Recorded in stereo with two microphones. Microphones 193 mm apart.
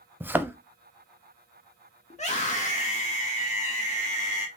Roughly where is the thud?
Centre.